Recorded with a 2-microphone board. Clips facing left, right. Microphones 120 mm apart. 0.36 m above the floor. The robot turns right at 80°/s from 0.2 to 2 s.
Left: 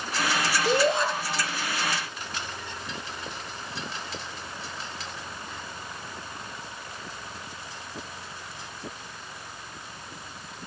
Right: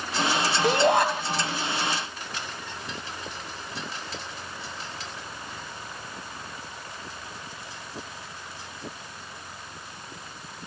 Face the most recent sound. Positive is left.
turn(degrees=-5)